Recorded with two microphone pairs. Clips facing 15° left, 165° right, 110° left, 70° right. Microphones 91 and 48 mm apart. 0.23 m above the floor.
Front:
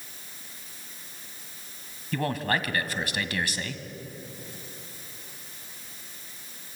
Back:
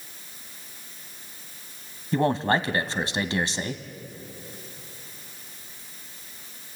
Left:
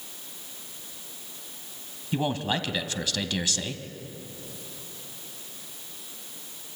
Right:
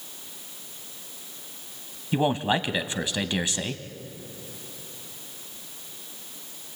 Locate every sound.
2.1 s a man speaking: 125° right, 1.1 m